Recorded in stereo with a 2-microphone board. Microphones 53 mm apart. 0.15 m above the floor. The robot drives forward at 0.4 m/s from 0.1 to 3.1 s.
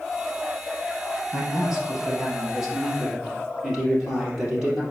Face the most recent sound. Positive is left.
turn(degrees=-10)  # may be behind; listen again after turning